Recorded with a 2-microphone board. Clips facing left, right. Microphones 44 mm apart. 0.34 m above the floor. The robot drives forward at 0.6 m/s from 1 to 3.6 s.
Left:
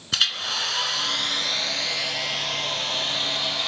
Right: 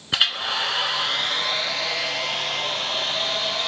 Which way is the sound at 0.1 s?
20° right (ahead or behind).